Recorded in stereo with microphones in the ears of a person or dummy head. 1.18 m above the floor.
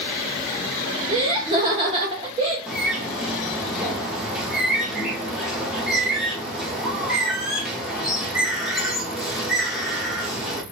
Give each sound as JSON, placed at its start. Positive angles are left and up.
{"t": 1.1, "sound": "laughter", "side_deg": -25, "distance_m": 0.5}
{"t": 2.7, "sound": "a bird", "side_deg": -5, "distance_m": 0.5}